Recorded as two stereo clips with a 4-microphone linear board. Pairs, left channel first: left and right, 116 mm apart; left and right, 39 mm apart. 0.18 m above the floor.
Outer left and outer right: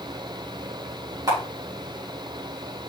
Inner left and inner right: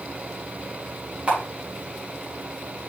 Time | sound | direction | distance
1.3 | a camera shutter | 35° right (ahead or behind) | 4 m